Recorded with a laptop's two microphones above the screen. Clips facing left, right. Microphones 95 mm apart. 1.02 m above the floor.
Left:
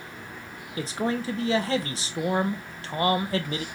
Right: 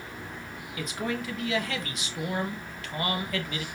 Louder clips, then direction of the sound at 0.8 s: Left 4 dB; 30° left (ahead or behind).